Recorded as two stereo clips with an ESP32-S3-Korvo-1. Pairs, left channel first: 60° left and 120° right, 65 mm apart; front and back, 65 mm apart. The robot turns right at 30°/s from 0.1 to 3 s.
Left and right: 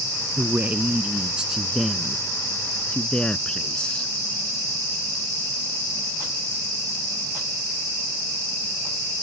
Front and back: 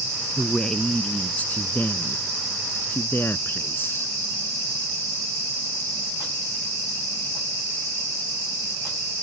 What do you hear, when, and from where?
0.4 s a man speaking: 80° right; by 4.1 s 5° right